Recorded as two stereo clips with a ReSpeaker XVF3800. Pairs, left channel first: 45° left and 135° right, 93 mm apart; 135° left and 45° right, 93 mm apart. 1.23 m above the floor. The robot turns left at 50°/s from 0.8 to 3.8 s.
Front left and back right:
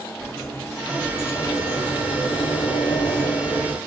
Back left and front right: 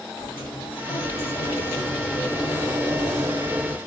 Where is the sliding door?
130° left, 1.7 m; by 3.8 s 20° right, 1.7 m.